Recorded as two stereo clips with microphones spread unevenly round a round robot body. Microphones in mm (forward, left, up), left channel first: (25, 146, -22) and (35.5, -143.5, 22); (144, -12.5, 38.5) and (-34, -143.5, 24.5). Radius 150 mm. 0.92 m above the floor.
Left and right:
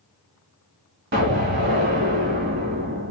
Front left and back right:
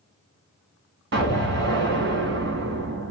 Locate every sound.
1.1 s an explosion: 150° right, 1.5 m